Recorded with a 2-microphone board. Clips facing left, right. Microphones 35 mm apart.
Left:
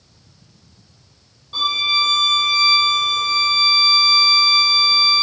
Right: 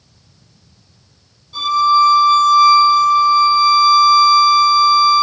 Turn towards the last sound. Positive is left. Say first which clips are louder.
# right 6 dB
turn(degrees=35)  # may be behind; listen again after turning